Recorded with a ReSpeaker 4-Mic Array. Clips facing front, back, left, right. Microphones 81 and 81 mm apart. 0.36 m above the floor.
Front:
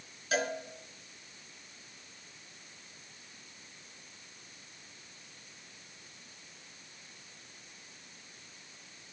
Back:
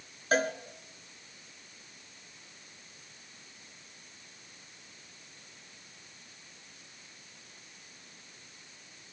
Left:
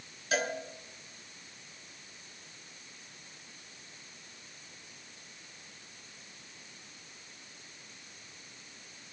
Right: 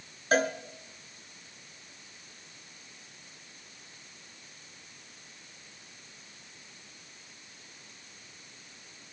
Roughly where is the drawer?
I don't hear a drawer.